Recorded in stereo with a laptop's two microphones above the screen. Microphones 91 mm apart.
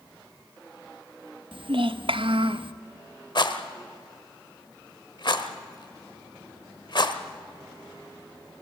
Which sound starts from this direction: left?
A rattle, at 3.4 s.